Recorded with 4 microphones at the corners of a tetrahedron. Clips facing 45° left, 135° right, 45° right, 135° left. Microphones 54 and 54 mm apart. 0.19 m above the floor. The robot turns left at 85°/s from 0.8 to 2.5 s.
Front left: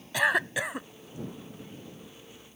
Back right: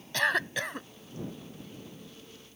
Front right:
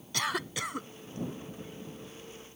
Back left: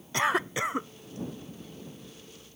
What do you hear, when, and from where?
0.1 s a cough: 115° left; by 0.9 s 105° left